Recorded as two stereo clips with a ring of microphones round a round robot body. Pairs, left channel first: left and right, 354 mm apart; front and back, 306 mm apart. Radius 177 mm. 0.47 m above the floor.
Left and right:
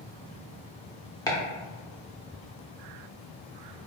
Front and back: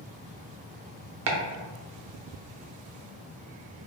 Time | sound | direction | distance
1.3 | chopping | 170° left | 0.8 m